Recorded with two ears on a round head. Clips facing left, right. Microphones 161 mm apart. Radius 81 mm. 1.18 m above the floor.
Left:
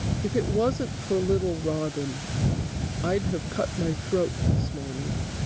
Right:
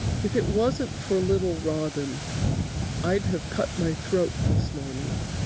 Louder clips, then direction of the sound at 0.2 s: Right 1 dB; 5° right (ahead or behind).